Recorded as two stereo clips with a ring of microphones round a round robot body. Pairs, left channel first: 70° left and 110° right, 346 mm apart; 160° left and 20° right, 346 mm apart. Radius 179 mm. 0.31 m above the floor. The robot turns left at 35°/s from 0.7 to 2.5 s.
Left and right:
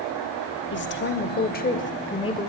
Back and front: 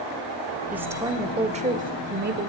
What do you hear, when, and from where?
0.7 s a woman speaking: 60° left, 0.9 m; by 2.5 s straight ahead, 0.9 m